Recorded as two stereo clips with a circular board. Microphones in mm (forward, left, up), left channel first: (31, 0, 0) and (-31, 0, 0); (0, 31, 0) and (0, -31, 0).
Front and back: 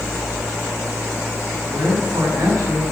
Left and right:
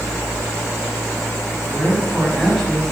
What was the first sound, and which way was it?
A woman speaking, 170° left.